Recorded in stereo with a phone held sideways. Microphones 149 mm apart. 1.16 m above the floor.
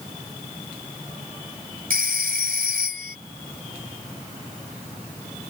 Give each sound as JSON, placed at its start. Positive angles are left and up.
{"t": 1.9, "sound": "a phone ringing", "side_deg": -80}